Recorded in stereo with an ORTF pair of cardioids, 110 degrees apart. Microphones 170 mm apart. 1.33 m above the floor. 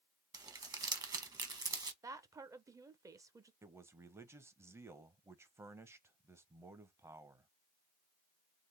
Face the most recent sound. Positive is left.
turn(degrees=-15)